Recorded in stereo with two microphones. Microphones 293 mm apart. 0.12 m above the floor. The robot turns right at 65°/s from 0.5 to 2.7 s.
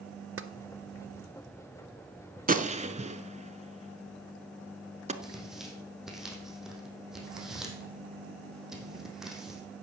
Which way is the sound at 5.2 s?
Centre (ahead or behind).